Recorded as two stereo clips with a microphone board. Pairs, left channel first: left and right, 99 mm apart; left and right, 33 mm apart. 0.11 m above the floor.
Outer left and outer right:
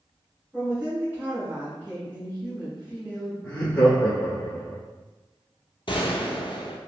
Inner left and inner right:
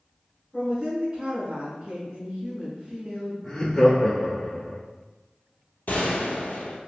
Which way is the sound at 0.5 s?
20° right (ahead or behind).